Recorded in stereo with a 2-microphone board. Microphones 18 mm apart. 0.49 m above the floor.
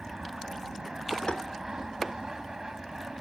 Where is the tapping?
55° left (ahead or behind).